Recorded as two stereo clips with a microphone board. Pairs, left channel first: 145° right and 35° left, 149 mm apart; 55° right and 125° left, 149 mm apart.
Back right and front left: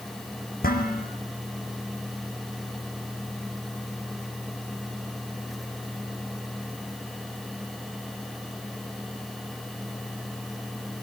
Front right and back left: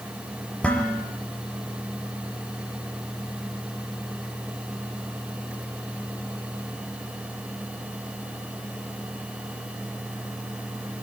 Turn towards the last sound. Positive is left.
turn(degrees=-135)